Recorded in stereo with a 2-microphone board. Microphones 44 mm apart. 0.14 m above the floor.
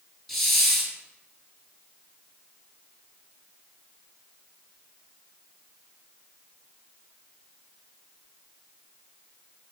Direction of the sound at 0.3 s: 5° left (ahead or behind).